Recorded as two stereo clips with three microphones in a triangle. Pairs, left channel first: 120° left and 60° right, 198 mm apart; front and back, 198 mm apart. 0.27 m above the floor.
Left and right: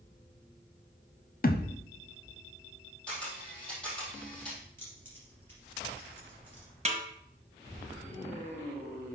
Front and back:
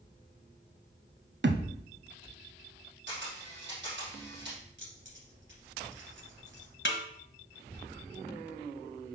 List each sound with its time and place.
1.4 s a thud: 160° left, 0.7 m
3.1 s a camera shutter: 155° right, 3.5 m
4.8 s keys jangling: 160° right, 3.5 m
6.8 s a snare drum: 5° right, 1.2 m